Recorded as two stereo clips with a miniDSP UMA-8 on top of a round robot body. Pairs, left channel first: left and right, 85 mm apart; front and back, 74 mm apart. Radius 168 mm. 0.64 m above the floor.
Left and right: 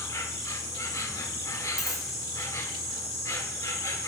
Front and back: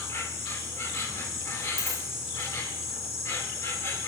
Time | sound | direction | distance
0.0 | an insect | 45° left | 2.5 m
1.8 | a dropped coin | 5° right | 9 m